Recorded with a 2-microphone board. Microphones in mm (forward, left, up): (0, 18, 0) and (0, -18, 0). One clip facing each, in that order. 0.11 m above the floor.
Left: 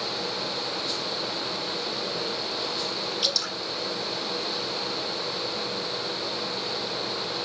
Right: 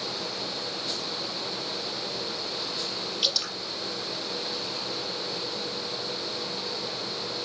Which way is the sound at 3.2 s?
20° right (ahead or behind).